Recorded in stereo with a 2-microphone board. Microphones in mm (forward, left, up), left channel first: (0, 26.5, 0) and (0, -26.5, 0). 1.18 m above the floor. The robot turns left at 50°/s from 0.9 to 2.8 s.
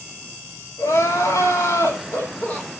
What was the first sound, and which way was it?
Crying, 115° left.